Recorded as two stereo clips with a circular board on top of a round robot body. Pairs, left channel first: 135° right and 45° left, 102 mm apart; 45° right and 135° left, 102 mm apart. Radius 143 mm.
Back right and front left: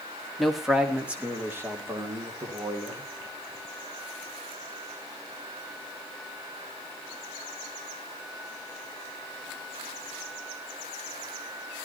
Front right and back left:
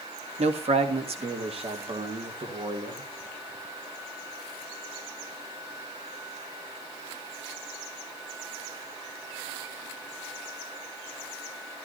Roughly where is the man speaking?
Behind left.